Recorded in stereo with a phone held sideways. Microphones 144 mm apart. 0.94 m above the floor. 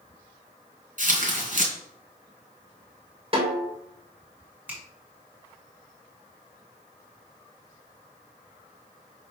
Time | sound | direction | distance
1.0 | tearing paper | 60° right (ahead or behind) | 2.5 m
3.3 | a snare drum | 35° right (ahead or behind) | 3.5 m
4.7 | a finger snap | 10° right (ahead or behind) | 3 m